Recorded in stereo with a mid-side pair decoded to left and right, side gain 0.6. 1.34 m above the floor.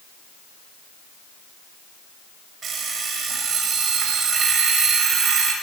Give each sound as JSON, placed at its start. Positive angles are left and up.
{"t": 2.6, "sound": "an alarm clock", "azimuth_deg": -30, "distance_m": 3.5}